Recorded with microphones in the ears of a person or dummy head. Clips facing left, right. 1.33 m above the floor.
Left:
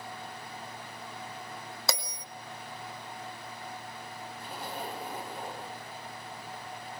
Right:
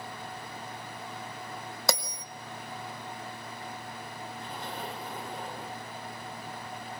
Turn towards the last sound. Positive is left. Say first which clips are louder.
# left 1 dB
turn(degrees=10)  # may be behind; listen again after turning